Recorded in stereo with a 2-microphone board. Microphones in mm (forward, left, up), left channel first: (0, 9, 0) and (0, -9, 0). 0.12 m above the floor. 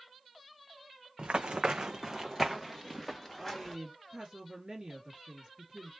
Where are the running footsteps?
80° right, 0.5 m; by 3.8 s 5° left (ahead or behind), 1.2 m.